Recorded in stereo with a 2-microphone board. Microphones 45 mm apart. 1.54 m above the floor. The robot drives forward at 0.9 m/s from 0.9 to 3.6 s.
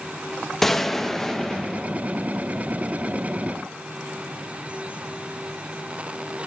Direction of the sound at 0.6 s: 10° left (ahead or behind).